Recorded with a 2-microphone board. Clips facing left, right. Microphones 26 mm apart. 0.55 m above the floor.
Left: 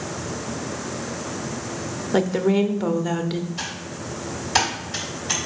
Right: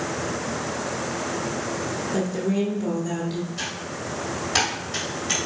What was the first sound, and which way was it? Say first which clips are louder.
A woman speaking: left 6 dB; 45° left (ahead or behind).